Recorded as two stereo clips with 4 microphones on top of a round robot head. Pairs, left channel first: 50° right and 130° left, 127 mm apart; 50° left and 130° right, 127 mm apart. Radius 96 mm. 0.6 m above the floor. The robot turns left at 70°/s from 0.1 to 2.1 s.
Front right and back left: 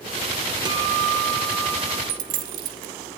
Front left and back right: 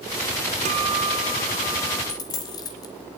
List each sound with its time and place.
0.7 s a guitar: 170° right, 0.9 m; by 2.0 s 100° left, 0.9 m
2.1 s a dropped coin: 115° left, 0.9 m; by 2.9 s 110° left, 0.9 m